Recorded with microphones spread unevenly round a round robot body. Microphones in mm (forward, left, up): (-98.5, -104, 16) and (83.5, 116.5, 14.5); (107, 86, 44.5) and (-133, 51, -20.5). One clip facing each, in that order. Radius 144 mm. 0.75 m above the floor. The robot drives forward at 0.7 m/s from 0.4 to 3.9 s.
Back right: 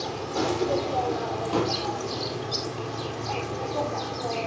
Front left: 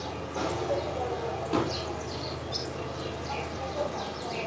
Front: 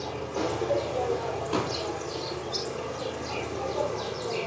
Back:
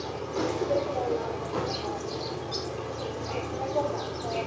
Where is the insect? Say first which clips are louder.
Back right 5 dB, back 1 dB; 100° right, 4.5 m; by 4.5 s 130° right, 5.5 m.